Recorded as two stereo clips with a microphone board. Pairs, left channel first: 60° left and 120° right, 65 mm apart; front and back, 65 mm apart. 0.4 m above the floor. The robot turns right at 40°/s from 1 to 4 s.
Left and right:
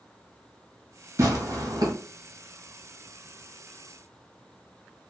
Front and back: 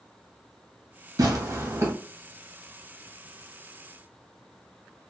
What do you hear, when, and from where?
1.2 s tearing paper: 160° right, 1.0 m; by 1.9 s 130° right, 1.0 m